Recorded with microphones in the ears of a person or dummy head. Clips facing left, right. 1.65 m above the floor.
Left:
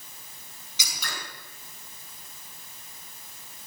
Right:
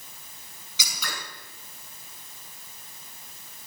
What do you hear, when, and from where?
0.8 s scissors: 70° right (ahead or behind), 5 m